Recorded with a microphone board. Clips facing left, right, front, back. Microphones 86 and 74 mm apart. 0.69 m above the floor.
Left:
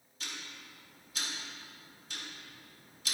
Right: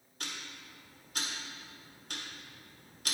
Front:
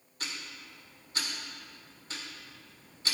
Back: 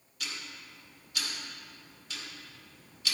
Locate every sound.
0.2 s ticking: 55° right, 1.6 m